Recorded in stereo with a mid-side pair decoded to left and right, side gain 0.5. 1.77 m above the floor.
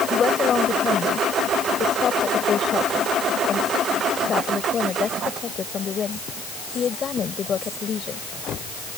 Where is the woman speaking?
40° left.